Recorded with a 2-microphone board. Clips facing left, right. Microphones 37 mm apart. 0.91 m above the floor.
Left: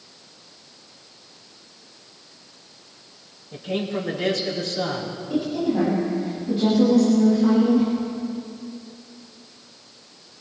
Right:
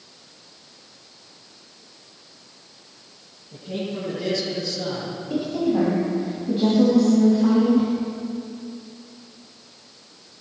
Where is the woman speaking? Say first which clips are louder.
Right 1 dB; 15° right (ahead or behind), 6.5 m.